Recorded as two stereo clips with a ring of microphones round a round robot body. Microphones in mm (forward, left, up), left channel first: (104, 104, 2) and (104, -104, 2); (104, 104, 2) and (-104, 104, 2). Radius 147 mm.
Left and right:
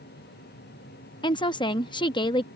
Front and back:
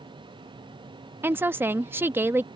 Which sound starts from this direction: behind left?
A woman speaking, at 1.2 s.